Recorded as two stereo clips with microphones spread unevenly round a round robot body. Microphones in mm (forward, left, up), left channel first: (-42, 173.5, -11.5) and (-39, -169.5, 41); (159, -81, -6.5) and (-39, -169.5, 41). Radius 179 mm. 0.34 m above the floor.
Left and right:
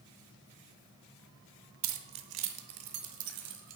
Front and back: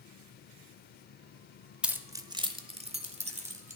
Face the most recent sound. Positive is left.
turn(degrees=-95)